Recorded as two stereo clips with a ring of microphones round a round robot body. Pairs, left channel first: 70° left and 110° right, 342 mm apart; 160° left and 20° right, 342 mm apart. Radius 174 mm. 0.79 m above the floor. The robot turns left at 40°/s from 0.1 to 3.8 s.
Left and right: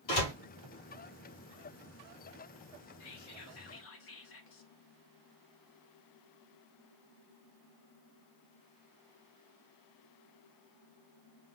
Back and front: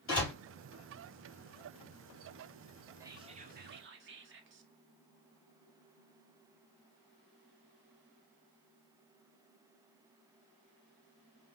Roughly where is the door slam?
Left.